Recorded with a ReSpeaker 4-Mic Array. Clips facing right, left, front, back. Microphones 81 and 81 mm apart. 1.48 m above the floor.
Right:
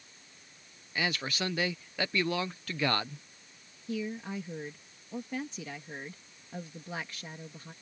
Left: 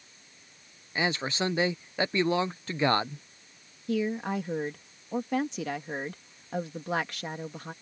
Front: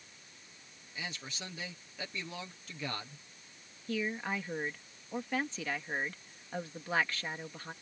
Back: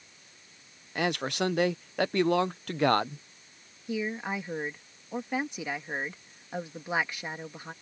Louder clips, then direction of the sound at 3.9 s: Left 7 dB, back 3 dB; 105° left.